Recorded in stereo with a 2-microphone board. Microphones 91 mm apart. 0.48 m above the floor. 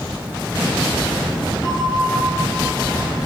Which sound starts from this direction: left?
A bell, at 1.6 s.